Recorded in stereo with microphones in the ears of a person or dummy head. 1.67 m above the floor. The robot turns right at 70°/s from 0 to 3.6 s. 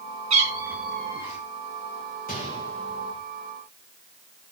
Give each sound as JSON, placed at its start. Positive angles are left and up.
{"t": 0.3, "sound": "a cat meowing", "azimuth_deg": -40, "distance_m": 4.0}
{"t": 2.3, "sound": "a gunshot", "side_deg": 45, "distance_m": 2.5}